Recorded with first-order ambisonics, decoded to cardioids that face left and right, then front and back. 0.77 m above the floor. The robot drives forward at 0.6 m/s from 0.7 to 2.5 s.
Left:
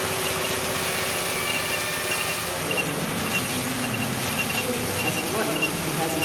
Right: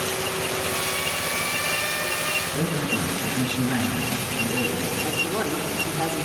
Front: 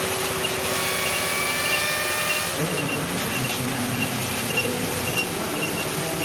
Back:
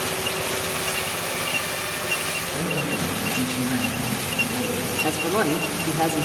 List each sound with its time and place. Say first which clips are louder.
2.5 s a man speaking: even, even; 115° right, 9.5 m
5.0 s a man speaking: even, back 4 dB; 175° right, 2.5 m